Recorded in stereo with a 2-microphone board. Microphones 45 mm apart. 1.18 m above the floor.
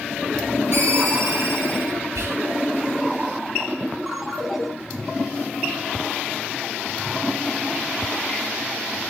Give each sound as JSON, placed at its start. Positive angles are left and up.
{"t": 0.7, "sound": "a ringtone", "side_deg": -65, "distance_m": 4.0}
{"t": 2.1, "sound": "whispering", "side_deg": -80, "distance_m": 1.9}
{"t": 4.1, "sound": "a ringtone", "side_deg": -5, "distance_m": 1.8}